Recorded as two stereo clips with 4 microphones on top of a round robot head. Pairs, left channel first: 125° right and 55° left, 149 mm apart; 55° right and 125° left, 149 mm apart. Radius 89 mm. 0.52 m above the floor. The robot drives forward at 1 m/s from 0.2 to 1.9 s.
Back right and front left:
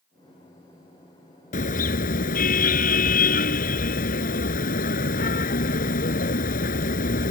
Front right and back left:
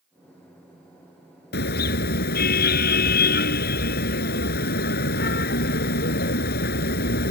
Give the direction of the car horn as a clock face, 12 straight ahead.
3 o'clock.